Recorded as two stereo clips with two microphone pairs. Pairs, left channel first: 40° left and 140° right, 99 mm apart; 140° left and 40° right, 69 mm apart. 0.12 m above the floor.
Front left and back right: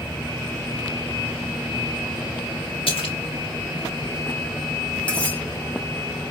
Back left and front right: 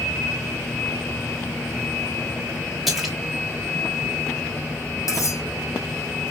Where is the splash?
50° left, 2.5 m.